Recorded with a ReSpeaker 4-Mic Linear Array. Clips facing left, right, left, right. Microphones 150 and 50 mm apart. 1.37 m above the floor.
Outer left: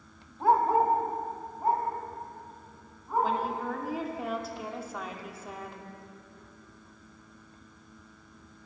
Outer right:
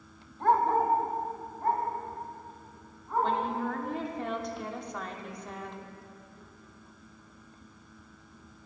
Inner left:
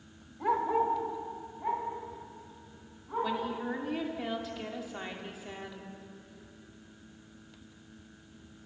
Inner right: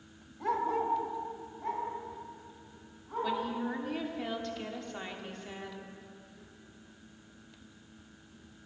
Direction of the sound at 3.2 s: 5° left (ahead or behind).